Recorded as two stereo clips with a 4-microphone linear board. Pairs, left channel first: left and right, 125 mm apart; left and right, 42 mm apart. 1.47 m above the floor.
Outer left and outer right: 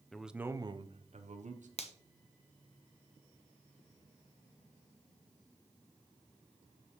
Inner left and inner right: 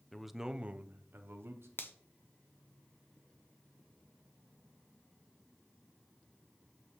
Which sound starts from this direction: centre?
A man speaking, at 0.1 s.